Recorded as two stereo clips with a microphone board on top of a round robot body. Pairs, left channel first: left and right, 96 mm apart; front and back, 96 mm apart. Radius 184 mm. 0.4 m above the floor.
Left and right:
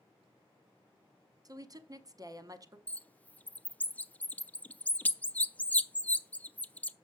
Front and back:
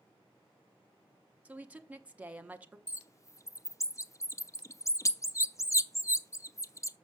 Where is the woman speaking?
110° right, 1.2 m.